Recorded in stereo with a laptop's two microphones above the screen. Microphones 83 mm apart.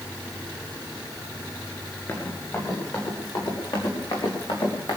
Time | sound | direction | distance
2.1 | running footsteps | 30° left (ahead or behind) | 5 m